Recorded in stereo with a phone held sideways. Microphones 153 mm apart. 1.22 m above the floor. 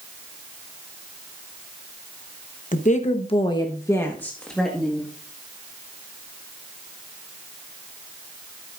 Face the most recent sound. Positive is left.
turn(degrees=0)  # may be behind; listen again after turning